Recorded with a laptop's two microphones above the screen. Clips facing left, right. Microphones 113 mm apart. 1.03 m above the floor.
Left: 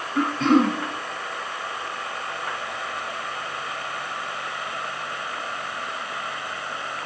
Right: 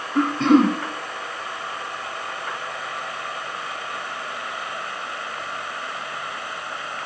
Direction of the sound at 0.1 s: 55° right (ahead or behind).